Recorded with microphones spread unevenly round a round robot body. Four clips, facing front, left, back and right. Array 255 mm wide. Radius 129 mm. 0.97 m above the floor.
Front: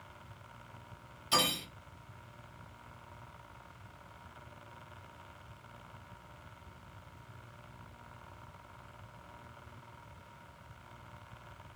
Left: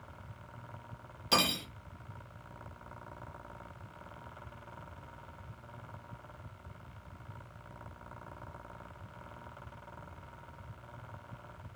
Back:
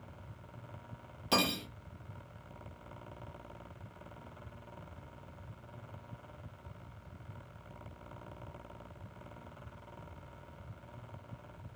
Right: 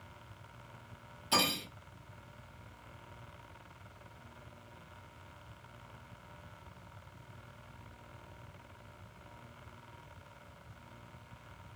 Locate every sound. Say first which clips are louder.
1.3 s cutlery clinking: left 1 dB, back 1 dB; 160° left, 0.6 m